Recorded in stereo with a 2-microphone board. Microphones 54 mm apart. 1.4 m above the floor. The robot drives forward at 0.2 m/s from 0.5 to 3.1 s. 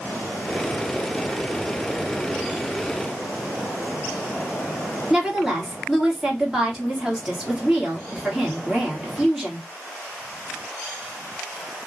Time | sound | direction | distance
5.1 | a woman speaking | 10° right (ahead or behind) | 1.8 m